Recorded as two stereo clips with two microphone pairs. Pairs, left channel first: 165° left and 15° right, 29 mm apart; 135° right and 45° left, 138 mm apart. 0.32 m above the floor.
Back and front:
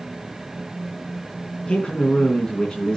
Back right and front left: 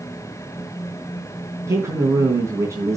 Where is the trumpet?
No trumpet in this recording.